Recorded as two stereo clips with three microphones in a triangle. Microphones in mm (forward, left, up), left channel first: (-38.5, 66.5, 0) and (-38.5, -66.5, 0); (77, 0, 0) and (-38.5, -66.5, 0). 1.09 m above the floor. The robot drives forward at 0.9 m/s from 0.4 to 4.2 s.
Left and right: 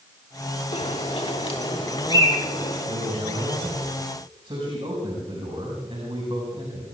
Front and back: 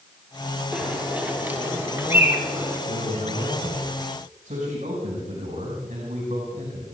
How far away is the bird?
About 3 m.